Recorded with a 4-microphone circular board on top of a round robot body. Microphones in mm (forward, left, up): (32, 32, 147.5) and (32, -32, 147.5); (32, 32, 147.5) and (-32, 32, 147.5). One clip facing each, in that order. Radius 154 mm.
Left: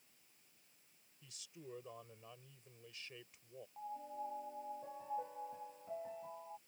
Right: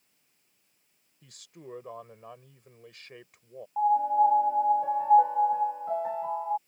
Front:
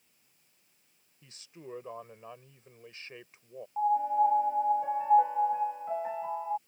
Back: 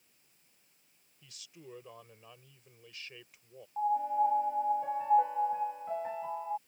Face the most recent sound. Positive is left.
turn(degrees=-80)